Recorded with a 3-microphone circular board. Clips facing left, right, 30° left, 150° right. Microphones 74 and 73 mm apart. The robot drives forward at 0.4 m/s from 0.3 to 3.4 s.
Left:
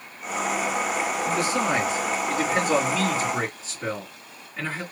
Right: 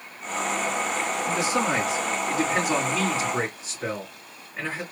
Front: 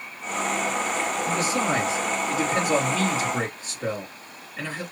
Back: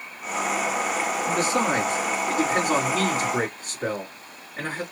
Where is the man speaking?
165° right, 2.5 m; by 4.8 s 170° right, 3 m.